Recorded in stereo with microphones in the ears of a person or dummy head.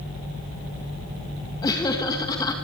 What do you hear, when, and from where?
1.6 s laughter: 20° left (ahead or behind), 1.9 m